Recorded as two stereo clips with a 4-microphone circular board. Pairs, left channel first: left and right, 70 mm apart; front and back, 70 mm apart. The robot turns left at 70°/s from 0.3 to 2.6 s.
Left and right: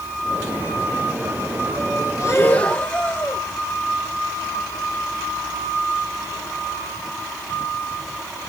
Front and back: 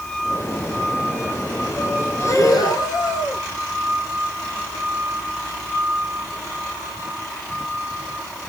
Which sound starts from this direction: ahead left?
Breathing, at 2.2 s.